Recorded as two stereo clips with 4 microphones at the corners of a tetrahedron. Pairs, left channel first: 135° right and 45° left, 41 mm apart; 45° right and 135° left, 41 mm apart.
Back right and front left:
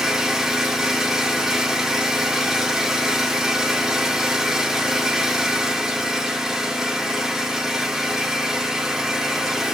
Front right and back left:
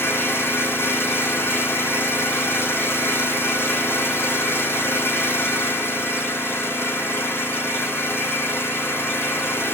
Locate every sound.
0.0 s an engine running: 35° right, 8 m